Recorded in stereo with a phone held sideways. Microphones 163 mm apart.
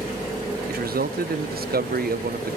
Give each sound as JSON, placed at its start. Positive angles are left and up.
{"t": 0.7, "sound": "a man speaking", "side_deg": -70, "distance_m": 0.6}